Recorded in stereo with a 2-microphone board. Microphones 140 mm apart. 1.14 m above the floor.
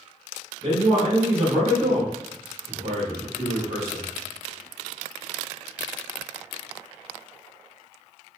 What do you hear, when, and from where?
0.6 s a man speaking: 45° right (ahead or behind), 1.5 m